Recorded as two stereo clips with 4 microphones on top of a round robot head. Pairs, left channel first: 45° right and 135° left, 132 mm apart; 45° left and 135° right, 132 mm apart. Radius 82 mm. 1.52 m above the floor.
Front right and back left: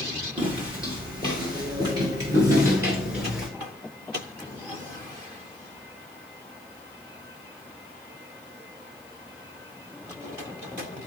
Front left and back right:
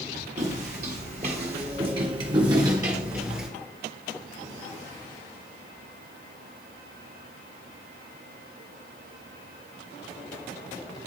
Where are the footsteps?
170° right, 2.5 m; by 3.5 s 175° right, 1.4 m.